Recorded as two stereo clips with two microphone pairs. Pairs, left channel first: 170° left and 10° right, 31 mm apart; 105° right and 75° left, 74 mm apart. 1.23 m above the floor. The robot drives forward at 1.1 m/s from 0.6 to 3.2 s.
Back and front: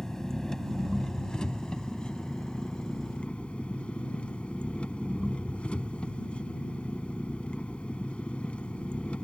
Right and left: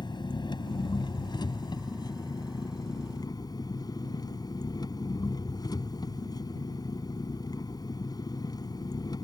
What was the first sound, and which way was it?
An engine running, 115° right.